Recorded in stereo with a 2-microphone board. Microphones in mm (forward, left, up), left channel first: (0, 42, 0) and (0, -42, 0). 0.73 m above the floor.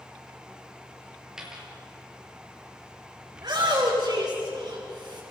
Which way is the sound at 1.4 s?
10° right (ahead or behind).